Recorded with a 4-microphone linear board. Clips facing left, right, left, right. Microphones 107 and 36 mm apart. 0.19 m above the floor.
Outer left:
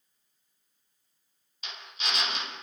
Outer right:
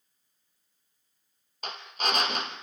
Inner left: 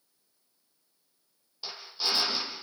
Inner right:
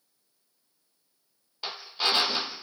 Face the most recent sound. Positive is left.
turn(degrees=-50)  # may be behind; listen again after turning